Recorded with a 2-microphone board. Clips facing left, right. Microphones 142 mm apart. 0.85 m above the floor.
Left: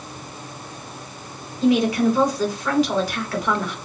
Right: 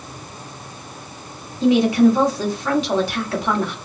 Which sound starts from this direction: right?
A woman speaking, at 1.6 s.